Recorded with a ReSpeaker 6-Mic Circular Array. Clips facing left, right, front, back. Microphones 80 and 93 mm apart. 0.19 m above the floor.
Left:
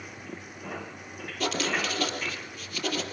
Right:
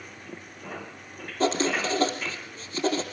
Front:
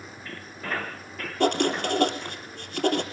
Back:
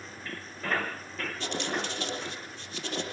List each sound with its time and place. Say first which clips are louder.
1.4 s writing: right 4 dB, front 11 dB; 30° right, 3.5 m